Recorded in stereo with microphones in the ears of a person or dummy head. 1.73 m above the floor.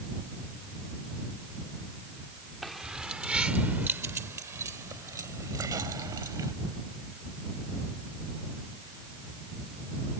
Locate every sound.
2.6 s keys jangling: 5° right (ahead or behind); by 6.5 s 25° right (ahead or behind)